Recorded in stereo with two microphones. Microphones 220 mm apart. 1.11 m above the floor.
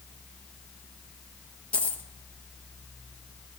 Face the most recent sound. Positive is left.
turn(degrees=5)  # may be behind; listen again after turning